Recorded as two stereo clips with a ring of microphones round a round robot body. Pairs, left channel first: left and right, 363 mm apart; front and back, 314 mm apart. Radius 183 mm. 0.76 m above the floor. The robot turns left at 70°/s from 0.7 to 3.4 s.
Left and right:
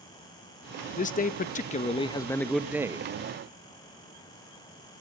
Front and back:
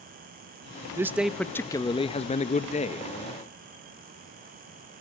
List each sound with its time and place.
1.0 s a man speaking: 115° left, 0.6 m; by 3.1 s 35° right, 0.6 m